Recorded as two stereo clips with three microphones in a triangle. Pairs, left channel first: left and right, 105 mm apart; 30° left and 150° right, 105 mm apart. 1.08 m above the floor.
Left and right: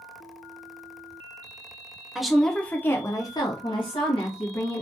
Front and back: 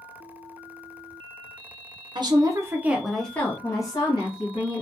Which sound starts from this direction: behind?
A woman speaking, at 2.1 s.